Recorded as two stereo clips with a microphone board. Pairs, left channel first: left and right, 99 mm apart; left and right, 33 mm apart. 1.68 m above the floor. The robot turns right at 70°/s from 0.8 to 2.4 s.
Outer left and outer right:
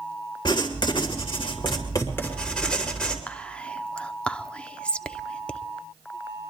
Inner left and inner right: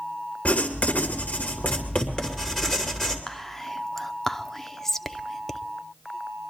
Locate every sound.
0.5 s writing: 60° left, 2.5 m; by 3.2 s 170° left, 2.5 m
3.3 s whispering: 10° left (ahead or behind), 0.6 m